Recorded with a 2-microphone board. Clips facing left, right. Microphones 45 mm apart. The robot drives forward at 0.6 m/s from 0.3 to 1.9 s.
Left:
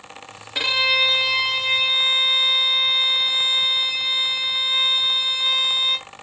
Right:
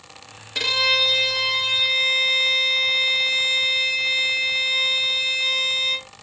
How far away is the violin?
About 0.5 m.